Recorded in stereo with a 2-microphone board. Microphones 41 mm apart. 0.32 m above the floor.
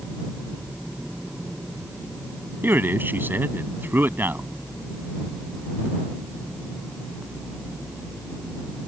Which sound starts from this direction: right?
A man speaking, at 2.6 s.